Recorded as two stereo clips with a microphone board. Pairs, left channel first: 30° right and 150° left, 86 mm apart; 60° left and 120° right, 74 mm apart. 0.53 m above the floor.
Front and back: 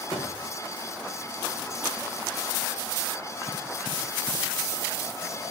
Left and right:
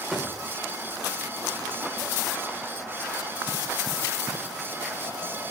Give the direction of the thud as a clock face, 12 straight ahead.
1 o'clock.